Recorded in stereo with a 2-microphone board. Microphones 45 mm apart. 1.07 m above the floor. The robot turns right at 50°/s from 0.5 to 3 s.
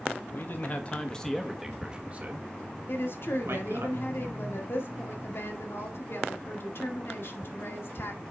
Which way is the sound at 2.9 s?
55° left (ahead or behind).